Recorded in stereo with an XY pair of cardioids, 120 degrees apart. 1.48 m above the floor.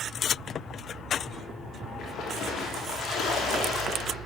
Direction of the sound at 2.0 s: 65° left.